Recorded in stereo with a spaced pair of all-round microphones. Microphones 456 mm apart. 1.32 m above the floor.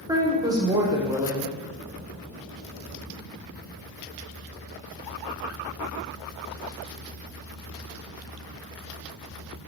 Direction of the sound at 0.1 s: 10° right (ahead or behind).